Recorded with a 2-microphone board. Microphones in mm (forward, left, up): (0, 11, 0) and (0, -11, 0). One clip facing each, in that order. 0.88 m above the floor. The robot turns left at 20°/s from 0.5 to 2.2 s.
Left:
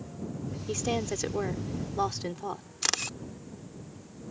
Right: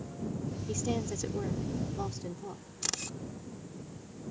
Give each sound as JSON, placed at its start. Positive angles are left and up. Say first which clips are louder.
{"t": 0.7, "sound": "a woman speaking", "louder": "left 4 dB", "azimuth_deg": 150}
{"t": 2.8, "sound": "a camera shutter", "louder": "left 6 dB", "side_deg": 40}